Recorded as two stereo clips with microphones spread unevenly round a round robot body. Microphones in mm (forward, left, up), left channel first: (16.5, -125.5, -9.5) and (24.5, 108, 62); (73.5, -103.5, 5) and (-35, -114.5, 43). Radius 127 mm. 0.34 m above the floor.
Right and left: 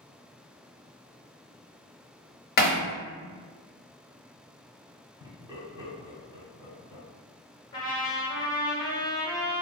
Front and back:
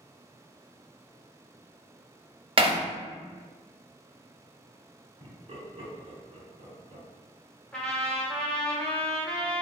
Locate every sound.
2.6 s hammering: 125° right, 0.6 m
5.2 s laughter: 175° left, 1.1 m
7.7 s a trumpet: 50° right, 0.8 m